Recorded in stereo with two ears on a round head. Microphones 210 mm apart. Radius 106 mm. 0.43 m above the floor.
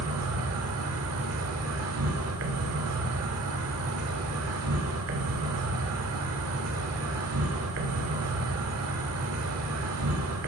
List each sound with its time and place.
0.0 s an insect: 70° right (ahead or behind), 1.6 m